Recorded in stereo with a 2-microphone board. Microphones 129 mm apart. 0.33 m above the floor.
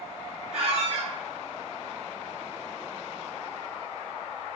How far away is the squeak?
About 1.2 m.